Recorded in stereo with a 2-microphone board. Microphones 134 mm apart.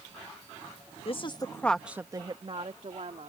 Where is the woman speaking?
45° left (ahead or behind); by 3.3 s 65° right (ahead or behind).